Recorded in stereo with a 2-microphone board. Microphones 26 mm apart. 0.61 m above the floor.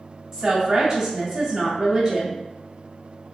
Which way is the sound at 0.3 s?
25° right (ahead or behind).